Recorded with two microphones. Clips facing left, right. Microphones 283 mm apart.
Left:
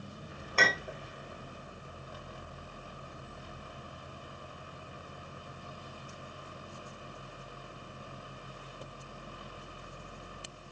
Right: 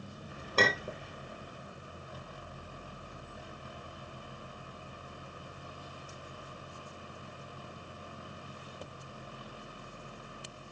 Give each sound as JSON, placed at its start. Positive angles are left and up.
{"t": 0.6, "sound": "a clink", "side_deg": -45, "distance_m": 0.6}